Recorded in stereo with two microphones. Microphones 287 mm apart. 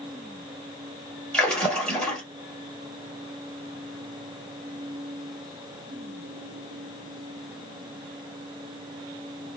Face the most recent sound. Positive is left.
turn(degrees=5)  # may be behind; listen again after turning